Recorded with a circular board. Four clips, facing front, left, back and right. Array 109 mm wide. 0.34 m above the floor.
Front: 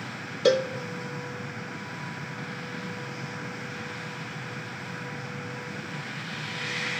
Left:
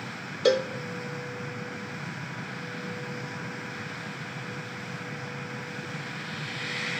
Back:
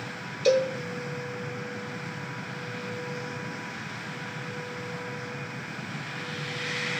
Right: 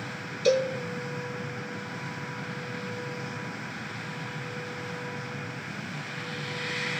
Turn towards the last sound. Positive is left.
turn(degrees=45)